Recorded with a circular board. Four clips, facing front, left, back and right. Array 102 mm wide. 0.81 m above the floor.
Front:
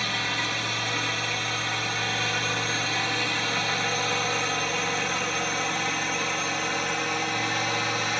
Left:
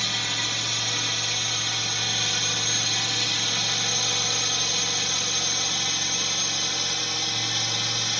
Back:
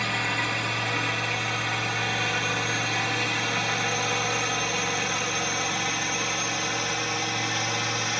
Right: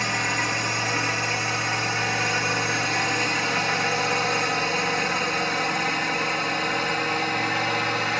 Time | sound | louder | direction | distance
0.0 | a drone | right 7 dB, back 2 dB | 105° right | ?